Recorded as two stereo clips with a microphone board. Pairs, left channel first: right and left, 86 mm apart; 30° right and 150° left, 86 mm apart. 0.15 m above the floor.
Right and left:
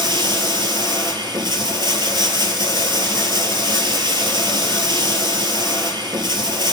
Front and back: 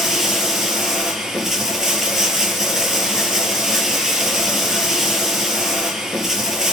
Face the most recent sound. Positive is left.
turn(degrees=65)